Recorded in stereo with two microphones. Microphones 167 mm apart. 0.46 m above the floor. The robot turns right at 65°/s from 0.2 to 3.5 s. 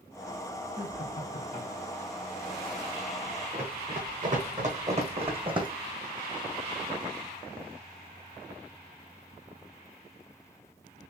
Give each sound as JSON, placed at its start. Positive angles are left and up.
{"t": 0.7, "sound": "laughter", "azimuth_deg": 80, "distance_m": 3.0}
{"t": 3.5, "sound": "running footsteps", "side_deg": -55, "distance_m": 2.5}